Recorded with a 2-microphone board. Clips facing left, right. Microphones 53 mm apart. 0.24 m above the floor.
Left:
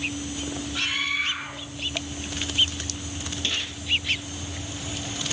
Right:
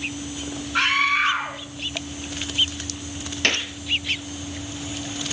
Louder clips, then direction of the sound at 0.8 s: Right 9 dB; 60° right (ahead or behind).